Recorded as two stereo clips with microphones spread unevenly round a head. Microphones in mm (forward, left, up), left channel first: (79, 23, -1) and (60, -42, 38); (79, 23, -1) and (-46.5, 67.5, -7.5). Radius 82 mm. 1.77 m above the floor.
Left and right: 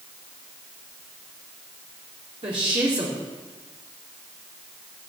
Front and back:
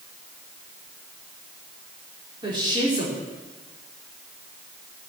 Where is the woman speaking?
135° right, 4.5 m.